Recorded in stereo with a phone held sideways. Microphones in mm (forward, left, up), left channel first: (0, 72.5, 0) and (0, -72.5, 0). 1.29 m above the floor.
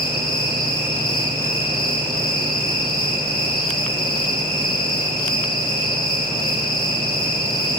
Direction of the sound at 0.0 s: 80° left.